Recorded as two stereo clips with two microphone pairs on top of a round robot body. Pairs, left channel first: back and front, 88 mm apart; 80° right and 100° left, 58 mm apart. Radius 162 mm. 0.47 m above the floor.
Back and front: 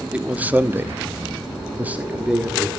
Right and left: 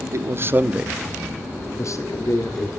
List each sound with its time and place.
0.1 s a man speaking: 75° left, 1.5 m; by 2.7 s 85° right, 2 m